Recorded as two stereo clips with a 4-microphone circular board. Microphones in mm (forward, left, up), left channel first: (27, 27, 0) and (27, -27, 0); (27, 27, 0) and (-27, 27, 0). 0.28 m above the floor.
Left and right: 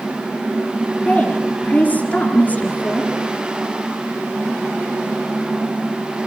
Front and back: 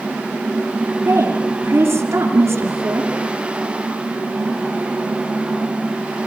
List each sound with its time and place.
1.1 s a woman speaking: 150° left, 3.5 m